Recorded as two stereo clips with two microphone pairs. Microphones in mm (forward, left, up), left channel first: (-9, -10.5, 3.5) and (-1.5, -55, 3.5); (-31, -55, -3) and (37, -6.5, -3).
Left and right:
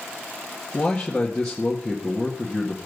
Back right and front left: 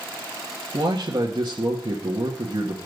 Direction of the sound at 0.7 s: 20° left.